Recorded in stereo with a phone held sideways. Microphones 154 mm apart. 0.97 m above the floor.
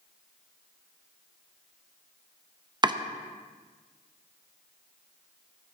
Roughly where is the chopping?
Right.